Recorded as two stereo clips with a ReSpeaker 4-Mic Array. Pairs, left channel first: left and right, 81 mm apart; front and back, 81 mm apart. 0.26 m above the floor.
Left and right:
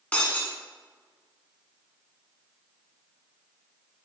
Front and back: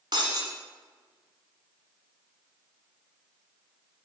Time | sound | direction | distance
0.1 | breaking glass | 165° left | 1.2 m